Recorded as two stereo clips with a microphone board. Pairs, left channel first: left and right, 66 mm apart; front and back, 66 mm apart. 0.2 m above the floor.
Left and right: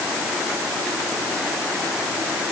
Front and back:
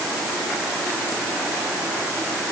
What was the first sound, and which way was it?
Only background noise.